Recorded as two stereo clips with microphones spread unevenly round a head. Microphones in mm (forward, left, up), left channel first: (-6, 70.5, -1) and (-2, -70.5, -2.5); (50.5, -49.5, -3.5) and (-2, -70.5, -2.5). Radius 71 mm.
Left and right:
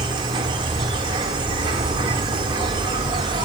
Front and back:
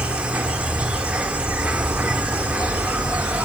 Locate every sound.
0.0 s an insect: 105° right, 1.1 m